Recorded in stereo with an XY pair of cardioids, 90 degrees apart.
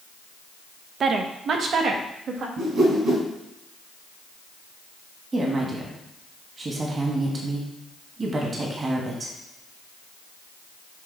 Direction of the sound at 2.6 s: 65° right.